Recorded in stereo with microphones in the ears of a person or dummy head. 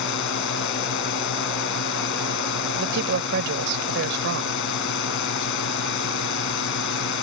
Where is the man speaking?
70° right (ahead or behind).